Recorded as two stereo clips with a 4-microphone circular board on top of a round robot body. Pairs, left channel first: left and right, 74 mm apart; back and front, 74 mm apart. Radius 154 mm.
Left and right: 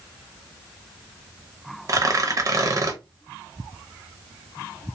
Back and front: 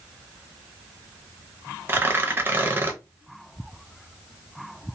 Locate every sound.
1.9 s tearing paper: 60° right, 0.8 m